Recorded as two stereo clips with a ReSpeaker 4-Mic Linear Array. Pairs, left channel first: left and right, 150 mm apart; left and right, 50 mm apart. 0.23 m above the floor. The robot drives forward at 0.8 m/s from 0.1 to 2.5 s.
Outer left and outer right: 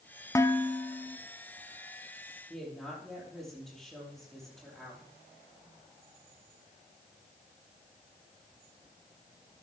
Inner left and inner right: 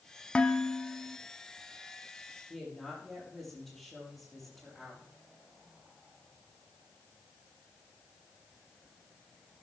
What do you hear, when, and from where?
0.3 s dishes clattering: 20° left (ahead or behind), 0.8 m; by 1.2 s 10° left (ahead or behind), 1.3 m
2.5 s a woman speaking: centre (ahead or behind), 6.5 m